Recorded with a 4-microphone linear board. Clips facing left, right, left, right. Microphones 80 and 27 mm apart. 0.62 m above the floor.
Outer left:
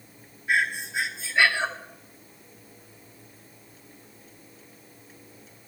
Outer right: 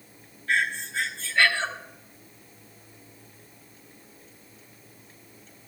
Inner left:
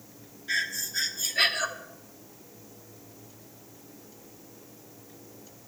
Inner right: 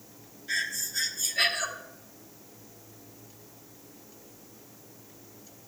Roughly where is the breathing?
Centre.